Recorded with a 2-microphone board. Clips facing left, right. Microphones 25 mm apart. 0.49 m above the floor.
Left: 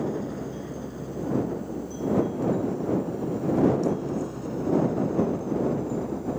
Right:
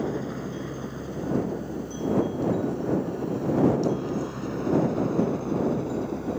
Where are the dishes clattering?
No dishes clattering in this recording.